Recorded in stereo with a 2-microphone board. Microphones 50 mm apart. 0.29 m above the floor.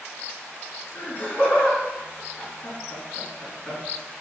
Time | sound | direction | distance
0.9 | laughter | 35° left (ahead or behind) | 3.5 m